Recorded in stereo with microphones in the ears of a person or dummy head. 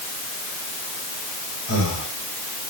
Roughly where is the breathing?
Left.